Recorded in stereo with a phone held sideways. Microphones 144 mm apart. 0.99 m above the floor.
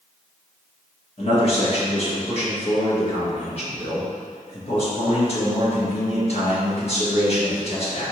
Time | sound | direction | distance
1.2 | a man speaking | 45° left (ahead or behind) | 1.5 m